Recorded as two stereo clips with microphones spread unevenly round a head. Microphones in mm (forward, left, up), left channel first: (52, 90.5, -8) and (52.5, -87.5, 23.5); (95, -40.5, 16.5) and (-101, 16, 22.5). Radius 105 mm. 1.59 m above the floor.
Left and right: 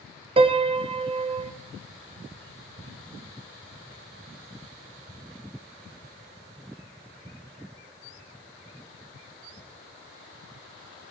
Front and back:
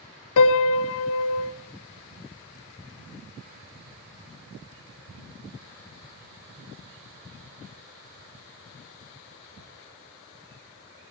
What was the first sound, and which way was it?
A piano, 35° right.